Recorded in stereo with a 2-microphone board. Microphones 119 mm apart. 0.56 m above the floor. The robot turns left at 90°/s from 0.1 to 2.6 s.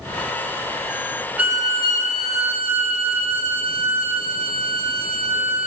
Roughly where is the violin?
Ahead.